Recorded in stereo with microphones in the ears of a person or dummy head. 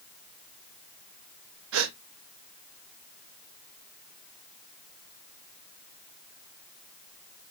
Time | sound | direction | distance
1.7 | a gasp | 70° right (ahead or behind) | 0.5 m